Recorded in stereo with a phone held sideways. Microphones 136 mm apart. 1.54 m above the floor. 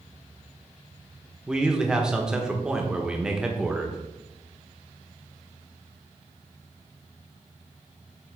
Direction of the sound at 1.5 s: 5° right (ahead or behind).